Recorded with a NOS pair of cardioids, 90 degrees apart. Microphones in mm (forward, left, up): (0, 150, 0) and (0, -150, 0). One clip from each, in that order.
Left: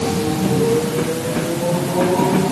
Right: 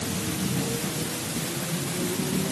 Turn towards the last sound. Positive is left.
No sound to turn to.